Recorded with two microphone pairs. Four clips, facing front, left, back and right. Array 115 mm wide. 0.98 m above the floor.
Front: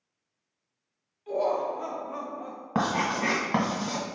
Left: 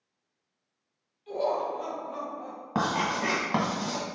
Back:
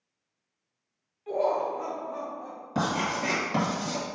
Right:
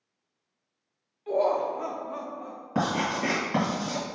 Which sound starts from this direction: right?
Laughter, at 1.3 s.